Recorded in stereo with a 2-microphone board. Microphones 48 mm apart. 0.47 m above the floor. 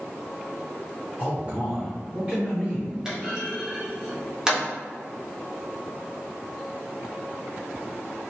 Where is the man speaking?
30° right (ahead or behind), 1.4 m.